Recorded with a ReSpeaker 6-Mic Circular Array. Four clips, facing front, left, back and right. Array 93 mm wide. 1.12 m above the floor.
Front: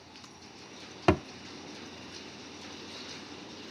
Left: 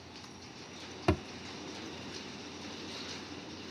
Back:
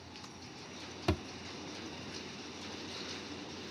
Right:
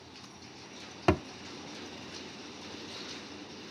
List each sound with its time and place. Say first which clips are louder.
1.1 s a thud: right 4 dB, front 10 dB; 25° right